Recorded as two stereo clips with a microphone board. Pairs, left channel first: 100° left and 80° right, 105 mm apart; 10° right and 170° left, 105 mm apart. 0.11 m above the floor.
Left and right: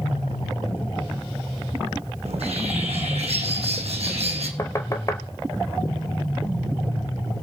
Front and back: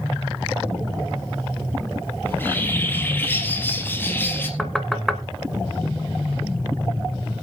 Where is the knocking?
75° left, 1.4 m.